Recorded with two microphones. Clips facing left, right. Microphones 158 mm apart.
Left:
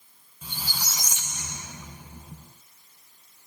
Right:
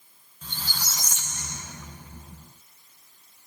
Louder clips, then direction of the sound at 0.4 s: Even; 10° left (ahead or behind).